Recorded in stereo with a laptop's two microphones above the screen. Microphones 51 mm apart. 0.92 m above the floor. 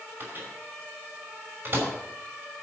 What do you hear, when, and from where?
0.2 s a microwave: 40° right (ahead or behind), 3 m